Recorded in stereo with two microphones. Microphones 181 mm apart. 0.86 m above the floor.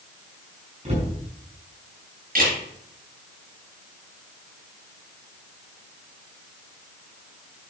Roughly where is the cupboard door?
Right.